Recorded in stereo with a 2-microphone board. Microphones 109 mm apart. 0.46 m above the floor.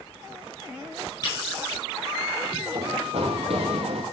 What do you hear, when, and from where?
1.2 s tapping: 40° left (ahead or behind), 4 m
2.8 s running footsteps: 65° right (ahead or behind), 1.9 m; by 4.0 s 75° right (ahead or behind), 2.5 m